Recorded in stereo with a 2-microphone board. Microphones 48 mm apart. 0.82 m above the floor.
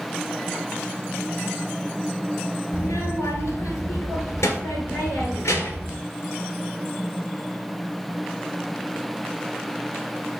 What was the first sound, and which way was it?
A child speaking, 85° left.